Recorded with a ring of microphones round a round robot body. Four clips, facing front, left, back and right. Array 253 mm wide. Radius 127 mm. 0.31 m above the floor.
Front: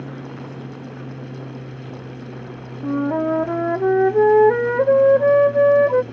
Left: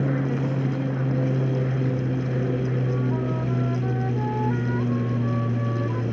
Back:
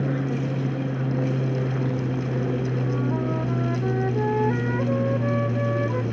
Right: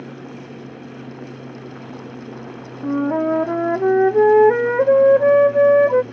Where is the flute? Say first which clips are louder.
Right 7 dB, front 5 dB; 55° right.